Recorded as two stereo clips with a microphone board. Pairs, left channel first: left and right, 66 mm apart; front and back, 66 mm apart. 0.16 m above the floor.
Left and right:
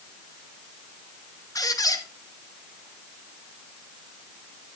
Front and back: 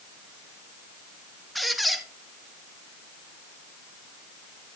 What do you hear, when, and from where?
1.6 s a squeak: 90° left, 1.0 m